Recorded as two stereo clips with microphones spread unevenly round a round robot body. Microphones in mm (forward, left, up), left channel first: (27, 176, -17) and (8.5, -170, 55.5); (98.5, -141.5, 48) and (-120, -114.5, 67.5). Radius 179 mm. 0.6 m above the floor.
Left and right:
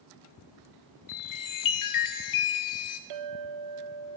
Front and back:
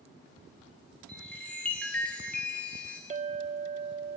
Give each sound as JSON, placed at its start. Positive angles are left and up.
{"t": 1.1, "sound": "a chime", "azimuth_deg": 75, "distance_m": 2.5}
{"t": 3.1, "sound": "a clink", "azimuth_deg": -130, "distance_m": 1.1}